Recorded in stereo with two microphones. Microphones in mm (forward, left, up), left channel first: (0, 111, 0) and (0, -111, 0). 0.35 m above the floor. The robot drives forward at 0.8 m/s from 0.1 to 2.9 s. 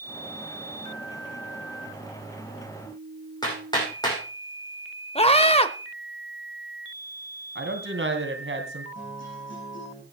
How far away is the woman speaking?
About 3 m.